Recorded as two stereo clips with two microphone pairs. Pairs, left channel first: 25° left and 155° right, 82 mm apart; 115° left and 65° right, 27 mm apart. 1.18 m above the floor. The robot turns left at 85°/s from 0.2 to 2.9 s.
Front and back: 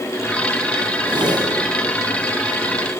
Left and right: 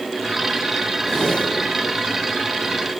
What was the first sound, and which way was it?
A whoosh, 170° right.